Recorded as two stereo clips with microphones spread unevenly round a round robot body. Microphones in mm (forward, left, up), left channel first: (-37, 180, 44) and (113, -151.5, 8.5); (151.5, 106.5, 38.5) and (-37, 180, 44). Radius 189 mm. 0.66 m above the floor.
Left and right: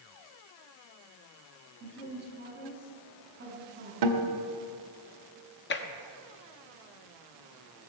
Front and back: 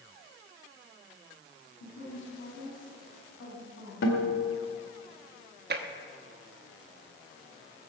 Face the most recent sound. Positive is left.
turn(degrees=170)